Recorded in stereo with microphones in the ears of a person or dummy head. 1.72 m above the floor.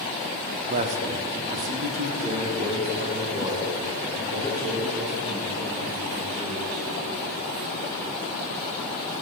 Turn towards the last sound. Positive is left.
turn(degrees=-30)  # may be behind; listen again after turning